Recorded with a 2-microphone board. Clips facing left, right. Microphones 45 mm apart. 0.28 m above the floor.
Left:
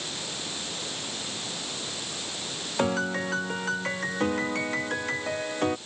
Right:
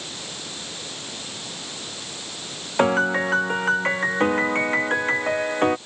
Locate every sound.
2.8 s a piano: 35° right (ahead or behind)